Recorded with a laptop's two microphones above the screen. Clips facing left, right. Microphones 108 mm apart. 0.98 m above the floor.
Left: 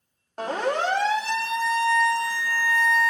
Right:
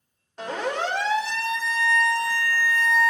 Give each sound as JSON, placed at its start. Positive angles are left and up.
{"t": 0.4, "sound": "a siren", "side_deg": 45, "distance_m": 3.0}